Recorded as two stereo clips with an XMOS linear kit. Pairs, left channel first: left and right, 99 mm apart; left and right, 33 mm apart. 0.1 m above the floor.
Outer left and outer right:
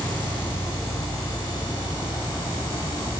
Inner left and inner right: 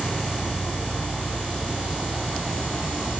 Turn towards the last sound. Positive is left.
turn(degrees=45)  # may be behind; listen again after turning